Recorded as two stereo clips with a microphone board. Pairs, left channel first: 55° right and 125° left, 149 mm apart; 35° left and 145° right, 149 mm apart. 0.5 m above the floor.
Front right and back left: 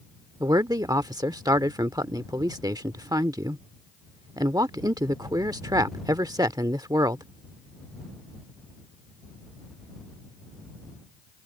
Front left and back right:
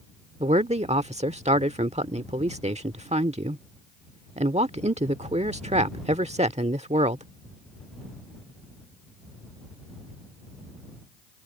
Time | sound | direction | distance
0.4 | a man speaking | 175° right | ?